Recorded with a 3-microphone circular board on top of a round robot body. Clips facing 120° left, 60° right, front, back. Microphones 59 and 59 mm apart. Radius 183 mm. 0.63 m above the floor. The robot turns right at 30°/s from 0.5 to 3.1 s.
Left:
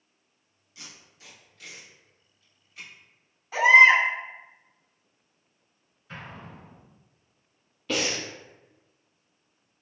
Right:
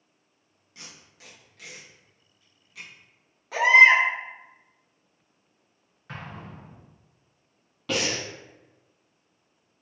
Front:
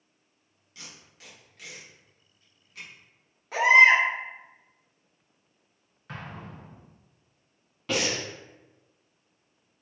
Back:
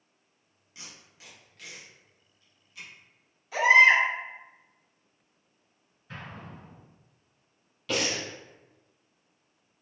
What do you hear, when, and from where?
0.8 s tape being pulled: 105° right, 1.4 m; by 2.9 s 45° right, 1.4 m
3.5 s a baby crying: 40° right, 1.6 m
6.1 s an explosion: 25° right, 1.1 m
7.9 s breathing: 60° right, 1.2 m